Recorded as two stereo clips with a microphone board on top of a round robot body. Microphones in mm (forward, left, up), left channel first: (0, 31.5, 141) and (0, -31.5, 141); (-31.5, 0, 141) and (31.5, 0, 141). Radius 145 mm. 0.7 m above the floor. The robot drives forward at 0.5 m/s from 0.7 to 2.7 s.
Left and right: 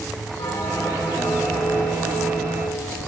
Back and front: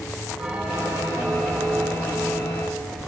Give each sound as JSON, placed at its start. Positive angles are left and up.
{"t": 0.4, "sound": "a bell", "azimuth_deg": 80, "distance_m": 9.5}